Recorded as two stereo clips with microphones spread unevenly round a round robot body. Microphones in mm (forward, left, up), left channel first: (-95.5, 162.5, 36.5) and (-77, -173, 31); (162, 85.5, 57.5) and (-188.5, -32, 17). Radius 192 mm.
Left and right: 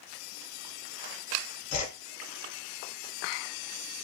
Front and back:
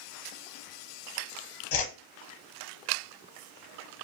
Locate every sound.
1.7 s a whoosh: 35° left, 0.8 m